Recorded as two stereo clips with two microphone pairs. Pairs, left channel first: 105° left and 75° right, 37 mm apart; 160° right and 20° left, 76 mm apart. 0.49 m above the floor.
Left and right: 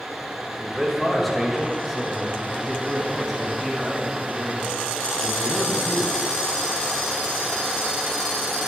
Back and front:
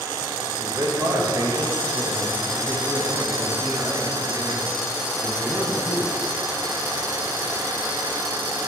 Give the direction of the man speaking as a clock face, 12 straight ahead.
11 o'clock.